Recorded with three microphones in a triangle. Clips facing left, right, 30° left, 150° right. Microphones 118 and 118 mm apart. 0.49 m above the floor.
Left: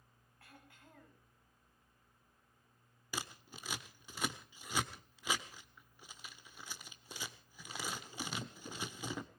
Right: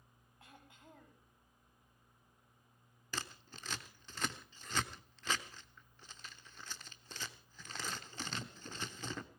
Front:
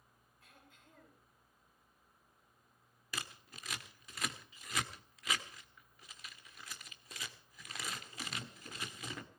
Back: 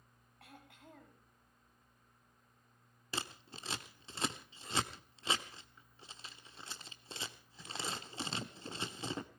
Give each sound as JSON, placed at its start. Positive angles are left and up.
{"t": 0.4, "sound": "throat clearing", "azimuth_deg": -160, "distance_m": 4.5}
{"t": 3.1, "sound": "scissors", "azimuth_deg": 165, "distance_m": 1.2}